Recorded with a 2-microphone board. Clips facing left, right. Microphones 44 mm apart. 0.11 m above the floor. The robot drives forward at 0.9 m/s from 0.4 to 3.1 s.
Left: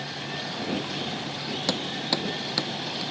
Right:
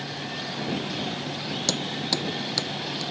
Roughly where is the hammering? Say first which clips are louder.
Left 1 dB; centre.